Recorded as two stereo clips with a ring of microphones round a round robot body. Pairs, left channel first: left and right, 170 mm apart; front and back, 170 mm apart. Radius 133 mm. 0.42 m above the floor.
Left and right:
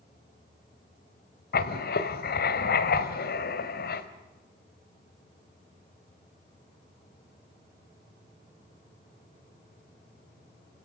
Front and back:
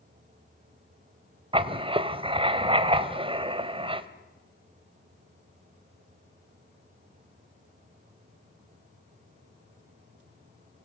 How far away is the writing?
About 1.6 m.